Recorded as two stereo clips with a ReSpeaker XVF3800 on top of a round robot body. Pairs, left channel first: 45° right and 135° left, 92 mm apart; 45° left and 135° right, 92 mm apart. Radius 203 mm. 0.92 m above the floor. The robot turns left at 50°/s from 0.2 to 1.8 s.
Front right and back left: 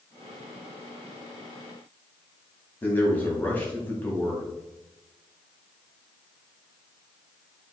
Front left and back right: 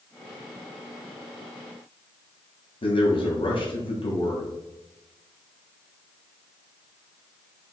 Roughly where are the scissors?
No scissors in this recording.